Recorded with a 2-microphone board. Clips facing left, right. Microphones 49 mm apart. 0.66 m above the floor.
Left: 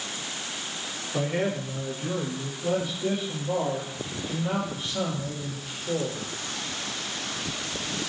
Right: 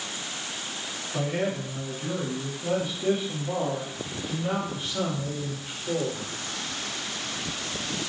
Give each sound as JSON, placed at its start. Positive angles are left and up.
{"t": 1.1, "sound": "a man speaking", "side_deg": 15, "distance_m": 1.1}